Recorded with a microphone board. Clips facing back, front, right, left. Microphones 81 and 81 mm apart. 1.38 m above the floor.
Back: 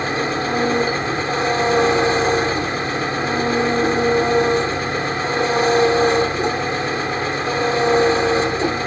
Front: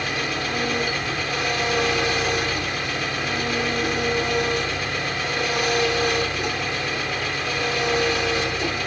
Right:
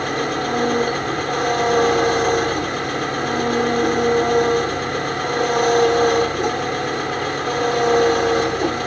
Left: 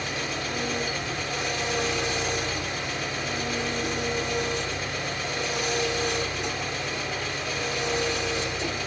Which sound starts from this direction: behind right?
An engine running, at 0.0 s.